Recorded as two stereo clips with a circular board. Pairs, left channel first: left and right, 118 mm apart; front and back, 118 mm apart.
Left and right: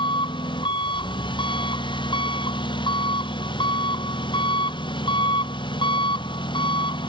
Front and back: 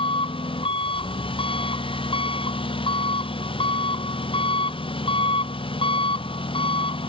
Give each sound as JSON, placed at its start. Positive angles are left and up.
{"t": 0.0, "sound": "an engine running", "azimuth_deg": 40}